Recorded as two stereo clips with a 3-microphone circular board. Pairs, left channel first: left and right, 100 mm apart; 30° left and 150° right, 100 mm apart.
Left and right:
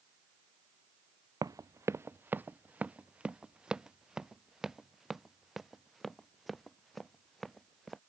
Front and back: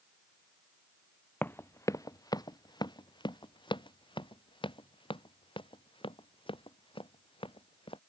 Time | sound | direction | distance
1.4 | running footsteps | 40° right | ?